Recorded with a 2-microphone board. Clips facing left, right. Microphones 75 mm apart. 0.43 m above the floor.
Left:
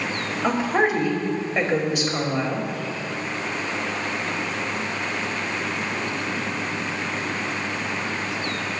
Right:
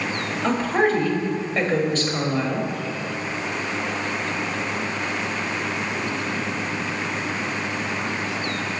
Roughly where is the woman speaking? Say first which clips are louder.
Right 1 dB; centre.